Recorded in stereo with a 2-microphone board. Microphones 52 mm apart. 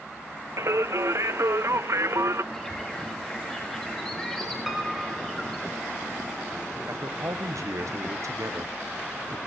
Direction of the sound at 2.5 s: 10° left (ahead or behind).